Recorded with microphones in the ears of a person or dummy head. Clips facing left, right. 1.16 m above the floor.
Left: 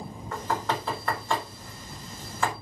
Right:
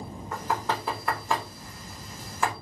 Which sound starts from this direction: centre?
Knocking, at 0.3 s.